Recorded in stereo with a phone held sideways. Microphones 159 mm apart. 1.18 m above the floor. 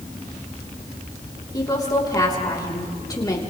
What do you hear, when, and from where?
1.5 s a woman speaking: 25° left (ahead or behind), 3.5 m